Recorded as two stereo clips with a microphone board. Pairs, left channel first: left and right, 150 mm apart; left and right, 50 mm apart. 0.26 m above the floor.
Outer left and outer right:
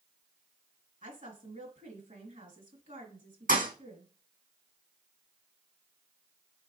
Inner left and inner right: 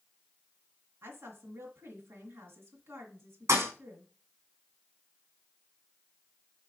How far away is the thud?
About 2 m.